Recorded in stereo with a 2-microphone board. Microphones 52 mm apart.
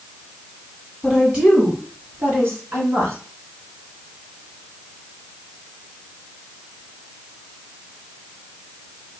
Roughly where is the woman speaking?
Centre.